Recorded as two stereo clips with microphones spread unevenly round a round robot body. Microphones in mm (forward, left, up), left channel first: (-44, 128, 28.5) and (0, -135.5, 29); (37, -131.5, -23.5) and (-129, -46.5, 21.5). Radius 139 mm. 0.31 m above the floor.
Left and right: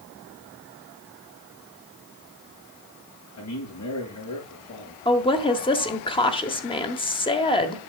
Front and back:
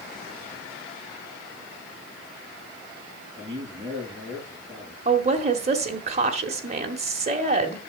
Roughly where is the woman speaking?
Behind left.